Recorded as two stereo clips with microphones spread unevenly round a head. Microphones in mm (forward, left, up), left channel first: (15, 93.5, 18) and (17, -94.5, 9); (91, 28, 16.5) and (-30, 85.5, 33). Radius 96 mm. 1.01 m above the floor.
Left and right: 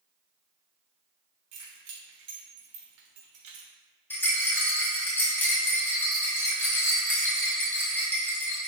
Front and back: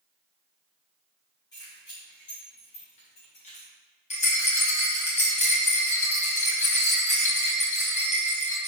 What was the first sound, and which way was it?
Keys jangling, 95° right.